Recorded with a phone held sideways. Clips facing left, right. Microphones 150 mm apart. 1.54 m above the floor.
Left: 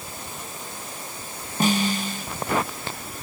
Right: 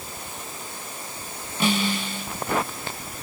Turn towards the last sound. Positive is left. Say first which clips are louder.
# left 2 dB
turn(degrees=45)  # may be behind; listen again after turning